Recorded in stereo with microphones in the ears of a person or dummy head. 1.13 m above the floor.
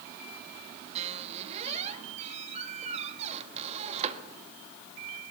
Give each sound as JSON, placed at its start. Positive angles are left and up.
{"t": 0.9, "sound": "a squeak", "side_deg": -40, "distance_m": 1.4}